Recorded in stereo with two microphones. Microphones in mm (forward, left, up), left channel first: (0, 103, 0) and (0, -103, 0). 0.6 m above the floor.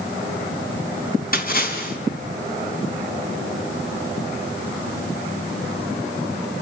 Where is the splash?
45° left (ahead or behind), 3.5 m.